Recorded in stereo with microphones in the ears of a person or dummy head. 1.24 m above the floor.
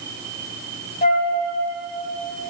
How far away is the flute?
About 3 m.